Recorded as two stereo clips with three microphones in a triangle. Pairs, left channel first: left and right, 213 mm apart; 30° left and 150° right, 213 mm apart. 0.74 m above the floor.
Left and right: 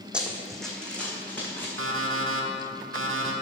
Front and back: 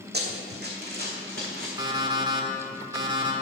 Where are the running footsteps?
175° right, 1.4 m; by 1.7 s 170° left, 2.5 m.